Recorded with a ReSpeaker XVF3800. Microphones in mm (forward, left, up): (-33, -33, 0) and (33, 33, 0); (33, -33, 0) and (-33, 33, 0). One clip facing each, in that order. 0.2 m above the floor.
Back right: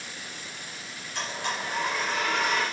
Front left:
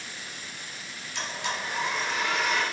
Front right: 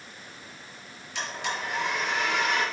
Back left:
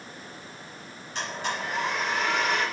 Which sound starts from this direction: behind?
A blender, at 1.1 s.